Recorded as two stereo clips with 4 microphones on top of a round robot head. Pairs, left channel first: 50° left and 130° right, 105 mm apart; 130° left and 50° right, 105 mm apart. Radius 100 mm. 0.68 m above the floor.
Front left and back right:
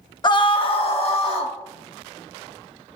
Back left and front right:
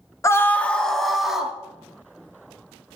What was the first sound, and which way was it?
A scream, 75° left.